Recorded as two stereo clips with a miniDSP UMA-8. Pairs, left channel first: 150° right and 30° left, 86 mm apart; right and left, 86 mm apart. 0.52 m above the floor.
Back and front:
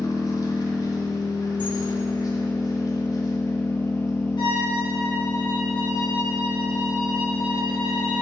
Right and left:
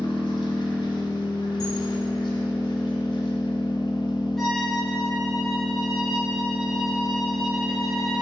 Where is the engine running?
110° right, 1.1 m.